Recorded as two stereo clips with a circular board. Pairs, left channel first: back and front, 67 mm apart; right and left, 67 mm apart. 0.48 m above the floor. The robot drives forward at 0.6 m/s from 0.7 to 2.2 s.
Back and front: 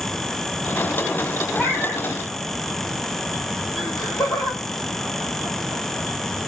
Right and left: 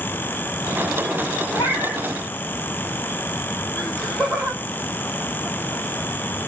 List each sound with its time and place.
1.6 s a cat meowing: 95° right, 2.5 m; by 2.1 s 100° right, 2.5 m
3.8 s laughter: straight behind, 2.5 m